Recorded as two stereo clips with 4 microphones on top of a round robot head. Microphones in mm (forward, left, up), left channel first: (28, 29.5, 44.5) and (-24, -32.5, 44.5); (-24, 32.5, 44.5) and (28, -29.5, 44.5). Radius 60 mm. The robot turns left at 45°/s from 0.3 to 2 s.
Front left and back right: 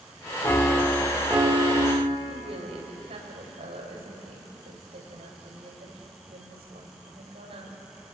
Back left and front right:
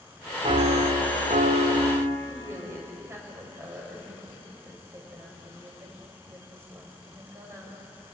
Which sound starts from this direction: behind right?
A woman speaking, at 2.3 s.